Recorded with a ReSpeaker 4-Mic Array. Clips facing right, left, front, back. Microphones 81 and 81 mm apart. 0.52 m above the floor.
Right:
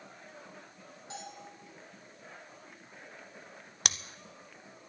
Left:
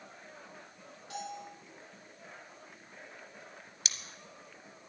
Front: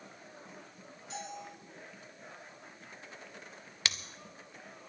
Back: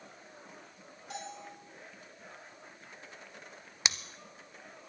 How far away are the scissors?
About 0.8 m.